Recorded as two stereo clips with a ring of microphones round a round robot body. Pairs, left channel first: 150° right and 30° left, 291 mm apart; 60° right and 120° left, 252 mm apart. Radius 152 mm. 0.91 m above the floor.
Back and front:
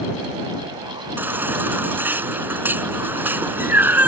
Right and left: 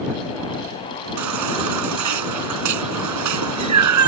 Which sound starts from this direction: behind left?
A baby crying, at 1.2 s.